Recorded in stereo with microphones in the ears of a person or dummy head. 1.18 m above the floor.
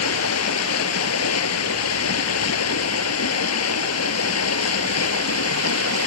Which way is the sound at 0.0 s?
85° left.